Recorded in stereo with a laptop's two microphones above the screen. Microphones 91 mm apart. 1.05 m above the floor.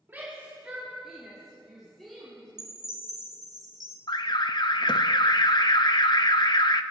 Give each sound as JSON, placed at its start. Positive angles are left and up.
{"t": 0.1, "sound": "a shout", "side_deg": -25, "distance_m": 2.0}
{"t": 2.6, "sound": "a chime", "side_deg": -45, "distance_m": 1.4}
{"t": 4.1, "sound": "an alarm", "side_deg": 55, "distance_m": 0.7}